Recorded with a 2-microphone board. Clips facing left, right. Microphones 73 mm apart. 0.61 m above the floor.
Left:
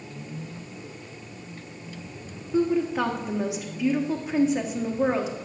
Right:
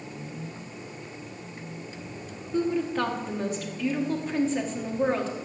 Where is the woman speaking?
10° left (ahead or behind), 1.2 m.